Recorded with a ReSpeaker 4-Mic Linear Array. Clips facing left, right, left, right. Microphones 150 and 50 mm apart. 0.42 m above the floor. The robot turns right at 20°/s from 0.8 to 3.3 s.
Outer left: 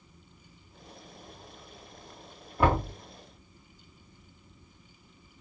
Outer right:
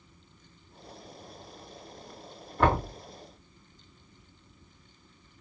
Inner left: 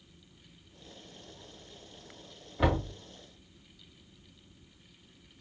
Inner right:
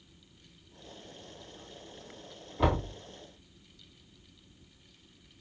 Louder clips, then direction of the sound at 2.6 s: Even, even; 10° left (ahead or behind).